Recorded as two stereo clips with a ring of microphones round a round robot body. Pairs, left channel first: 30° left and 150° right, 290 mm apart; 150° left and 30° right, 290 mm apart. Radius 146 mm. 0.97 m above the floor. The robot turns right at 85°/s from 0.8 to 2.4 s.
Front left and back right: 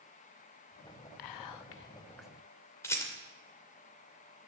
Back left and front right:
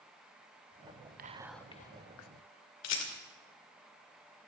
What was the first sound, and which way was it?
Whispering, 30° left.